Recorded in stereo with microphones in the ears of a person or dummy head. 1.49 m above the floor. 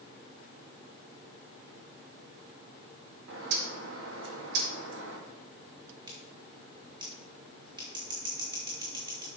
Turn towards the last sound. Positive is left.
turn(degrees=-15)  # may be behind; listen again after turning